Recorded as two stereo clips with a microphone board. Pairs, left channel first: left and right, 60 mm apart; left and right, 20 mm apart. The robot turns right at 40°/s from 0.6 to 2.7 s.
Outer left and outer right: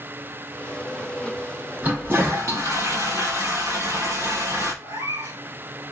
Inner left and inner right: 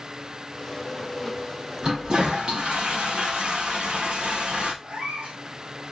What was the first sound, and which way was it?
A toilet flushing, 150° right.